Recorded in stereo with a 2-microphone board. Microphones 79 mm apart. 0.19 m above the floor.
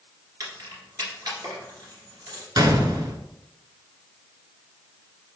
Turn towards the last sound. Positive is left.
turn(degrees=-60)  # may be behind; listen again after turning